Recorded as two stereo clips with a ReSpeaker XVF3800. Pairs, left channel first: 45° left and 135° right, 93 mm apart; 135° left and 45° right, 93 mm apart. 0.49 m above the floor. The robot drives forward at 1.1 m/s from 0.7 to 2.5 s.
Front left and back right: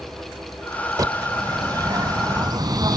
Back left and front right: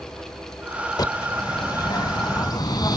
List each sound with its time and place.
1.0 s a bird: straight behind, 0.8 m